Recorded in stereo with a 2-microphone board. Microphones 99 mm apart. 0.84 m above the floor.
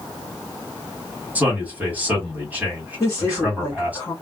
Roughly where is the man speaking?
Centre.